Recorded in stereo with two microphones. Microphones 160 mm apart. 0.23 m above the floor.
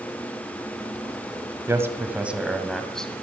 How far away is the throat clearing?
No throat clearing in this recording.